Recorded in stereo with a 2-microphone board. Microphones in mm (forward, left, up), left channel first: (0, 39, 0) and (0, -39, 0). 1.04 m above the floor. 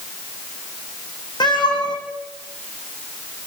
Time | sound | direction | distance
1.4 | a cat meowing | 65° left (ahead or behind) | 6 m